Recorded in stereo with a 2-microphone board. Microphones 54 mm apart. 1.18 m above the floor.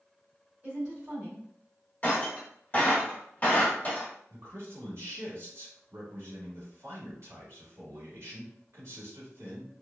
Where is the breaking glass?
30° left (ahead or behind), 1.2 m.